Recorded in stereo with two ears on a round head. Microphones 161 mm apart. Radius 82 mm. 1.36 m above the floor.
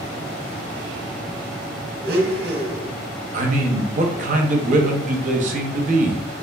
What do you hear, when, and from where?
2.0 s a blender: 55° right (ahead or behind), 0.6 m
3.3 s a man speaking: 40° right (ahead or behind), 0.6 m